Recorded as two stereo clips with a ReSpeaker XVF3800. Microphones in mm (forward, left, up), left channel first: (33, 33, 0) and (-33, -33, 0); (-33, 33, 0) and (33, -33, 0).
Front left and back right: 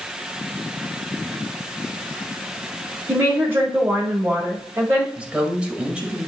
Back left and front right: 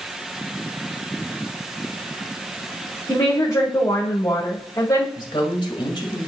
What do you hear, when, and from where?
3.1 s a woman speaking: 165° left, 2 m
5.2 s a woman speaking: 150° left, 2.0 m